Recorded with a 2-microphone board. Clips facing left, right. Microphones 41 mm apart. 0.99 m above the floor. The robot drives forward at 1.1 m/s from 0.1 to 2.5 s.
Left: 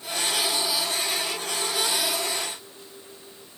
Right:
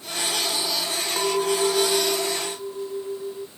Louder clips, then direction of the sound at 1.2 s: Right 7 dB; 80° right.